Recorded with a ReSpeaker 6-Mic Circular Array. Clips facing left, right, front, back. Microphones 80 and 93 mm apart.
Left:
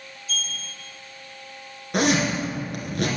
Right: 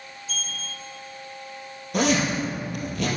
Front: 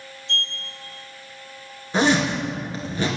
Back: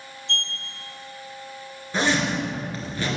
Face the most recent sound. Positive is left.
turn(degrees=70)